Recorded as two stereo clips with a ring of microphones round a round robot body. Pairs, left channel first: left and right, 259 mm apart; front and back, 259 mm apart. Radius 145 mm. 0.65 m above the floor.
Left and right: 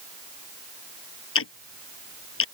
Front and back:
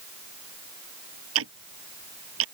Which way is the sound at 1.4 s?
130° left.